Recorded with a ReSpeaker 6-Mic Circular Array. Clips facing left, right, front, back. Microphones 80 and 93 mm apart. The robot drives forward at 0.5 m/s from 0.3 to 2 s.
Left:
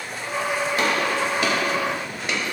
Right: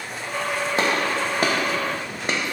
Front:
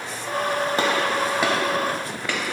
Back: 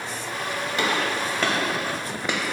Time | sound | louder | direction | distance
0.8 | a gunshot | right 1 dB, even | 40° right | 0.7 m